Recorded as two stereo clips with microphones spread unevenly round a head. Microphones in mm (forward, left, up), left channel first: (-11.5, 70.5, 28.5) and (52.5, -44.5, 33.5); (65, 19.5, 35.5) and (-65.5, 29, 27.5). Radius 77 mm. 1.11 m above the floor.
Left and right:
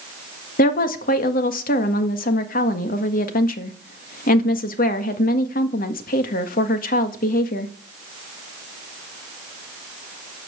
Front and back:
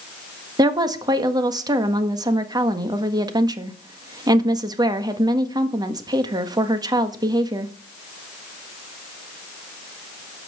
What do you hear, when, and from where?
0.6 s a woman speaking: 115° left, 1.7 m